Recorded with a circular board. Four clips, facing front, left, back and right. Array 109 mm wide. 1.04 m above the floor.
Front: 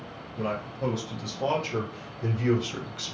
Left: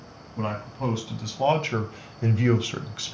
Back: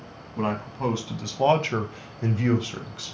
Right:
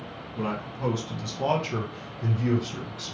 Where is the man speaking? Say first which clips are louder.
Left 1 dB, back 3 dB; 175° left, 1.4 m; by 3.1 s 75° left, 0.6 m.